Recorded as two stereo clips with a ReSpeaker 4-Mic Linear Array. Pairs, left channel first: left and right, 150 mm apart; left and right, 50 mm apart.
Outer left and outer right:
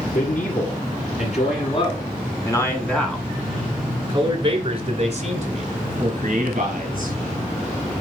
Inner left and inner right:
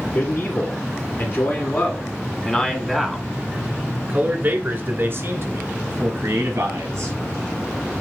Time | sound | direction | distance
0.1 | a man speaking | 60° left (ahead or behind) | 2.5 m